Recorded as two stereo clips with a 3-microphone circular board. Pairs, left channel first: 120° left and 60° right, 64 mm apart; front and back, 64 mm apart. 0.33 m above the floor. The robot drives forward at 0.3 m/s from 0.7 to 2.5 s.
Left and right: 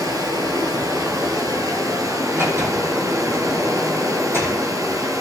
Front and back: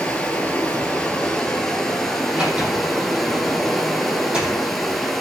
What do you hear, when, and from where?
0.0 s running water: 75° right, 2.5 m; by 5.2 s 85° right, 2 m
2.3 s a sliding door: 105° right, 4 m; by 4.6 s 110° right, 4 m